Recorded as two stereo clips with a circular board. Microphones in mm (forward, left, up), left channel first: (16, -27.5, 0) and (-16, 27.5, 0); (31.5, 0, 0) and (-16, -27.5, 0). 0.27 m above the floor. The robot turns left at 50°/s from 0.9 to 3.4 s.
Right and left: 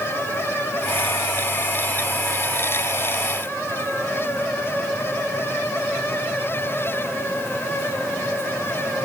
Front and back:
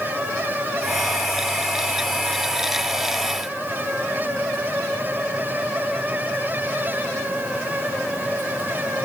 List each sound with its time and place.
Only background noise.